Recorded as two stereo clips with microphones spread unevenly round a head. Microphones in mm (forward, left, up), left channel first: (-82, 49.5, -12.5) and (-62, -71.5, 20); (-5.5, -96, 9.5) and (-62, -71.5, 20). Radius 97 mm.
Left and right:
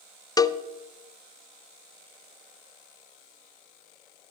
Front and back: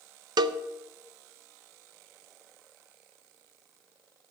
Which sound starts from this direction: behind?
A cowbell, at 0.4 s.